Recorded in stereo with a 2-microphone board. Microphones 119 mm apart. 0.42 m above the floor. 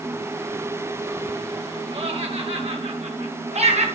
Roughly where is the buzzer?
No buzzer in this recording.